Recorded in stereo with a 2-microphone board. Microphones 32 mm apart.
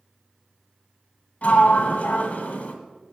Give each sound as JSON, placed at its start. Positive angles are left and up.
{"t": 1.4, "sound": "a sliding door", "side_deg": 50, "distance_m": 1.4}